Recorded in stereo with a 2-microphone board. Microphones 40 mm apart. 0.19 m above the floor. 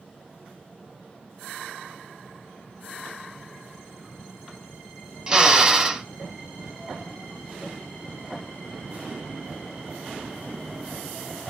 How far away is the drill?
About 1.7 m.